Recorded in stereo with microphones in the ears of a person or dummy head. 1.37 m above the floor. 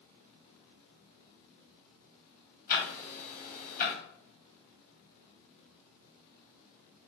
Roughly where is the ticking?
Left.